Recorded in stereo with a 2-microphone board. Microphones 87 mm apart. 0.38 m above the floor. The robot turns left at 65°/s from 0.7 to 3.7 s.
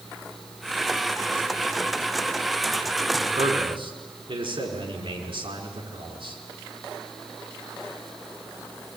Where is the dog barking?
No dog barking in this recording.